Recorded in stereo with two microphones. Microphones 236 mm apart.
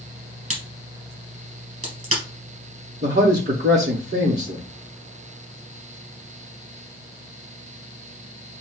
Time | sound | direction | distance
0.5 | a crack | 70° right (ahead or behind) | 3 m
3.0 | a man speaking | 45° right (ahead or behind) | 5.5 m